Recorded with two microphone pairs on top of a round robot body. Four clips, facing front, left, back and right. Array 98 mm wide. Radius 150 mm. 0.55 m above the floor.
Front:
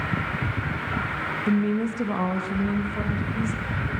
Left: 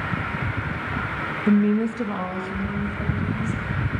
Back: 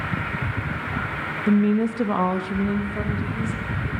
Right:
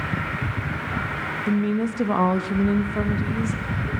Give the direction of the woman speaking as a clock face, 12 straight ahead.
8 o'clock.